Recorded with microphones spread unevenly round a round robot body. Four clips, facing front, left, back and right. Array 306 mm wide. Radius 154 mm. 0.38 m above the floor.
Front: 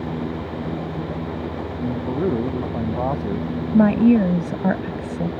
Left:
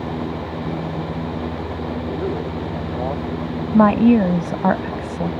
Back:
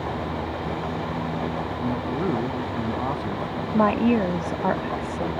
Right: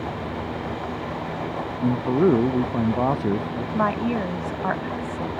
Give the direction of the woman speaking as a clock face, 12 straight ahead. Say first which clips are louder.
Left 11 dB, front 5 dB; 10 o'clock.